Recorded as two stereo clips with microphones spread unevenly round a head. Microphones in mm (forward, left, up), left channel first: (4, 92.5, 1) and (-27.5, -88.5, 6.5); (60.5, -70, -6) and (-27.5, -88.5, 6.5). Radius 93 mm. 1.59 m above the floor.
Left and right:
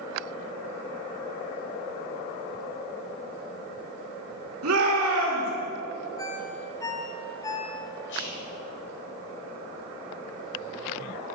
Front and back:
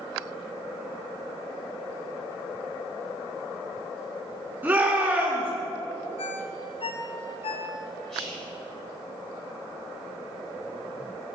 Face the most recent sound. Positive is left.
turn(degrees=100)